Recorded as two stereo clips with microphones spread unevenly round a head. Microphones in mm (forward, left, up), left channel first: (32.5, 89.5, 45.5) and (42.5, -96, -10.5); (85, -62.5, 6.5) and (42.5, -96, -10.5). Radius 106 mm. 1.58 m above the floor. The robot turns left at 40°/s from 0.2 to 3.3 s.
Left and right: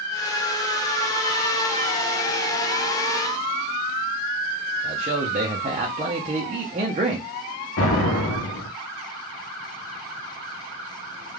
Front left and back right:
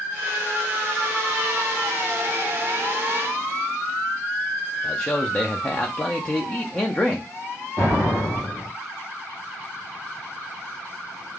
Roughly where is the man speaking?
Ahead right.